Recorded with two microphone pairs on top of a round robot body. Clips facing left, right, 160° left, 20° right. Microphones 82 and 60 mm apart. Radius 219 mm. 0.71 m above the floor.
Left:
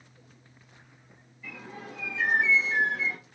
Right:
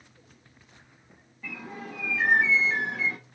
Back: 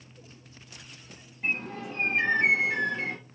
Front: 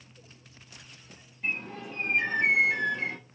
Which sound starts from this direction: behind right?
A bird, at 1.4 s.